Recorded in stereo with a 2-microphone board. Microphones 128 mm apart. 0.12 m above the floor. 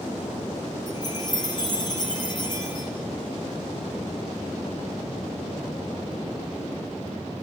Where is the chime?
35° left (ahead or behind), 4.5 m.